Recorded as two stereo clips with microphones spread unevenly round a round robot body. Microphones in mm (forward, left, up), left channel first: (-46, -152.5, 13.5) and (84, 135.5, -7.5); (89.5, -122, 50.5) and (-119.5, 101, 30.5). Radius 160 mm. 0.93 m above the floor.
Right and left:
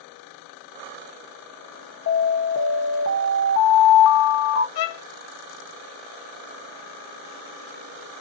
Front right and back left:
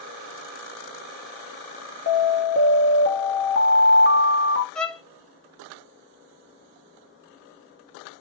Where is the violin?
135° right, 0.7 m.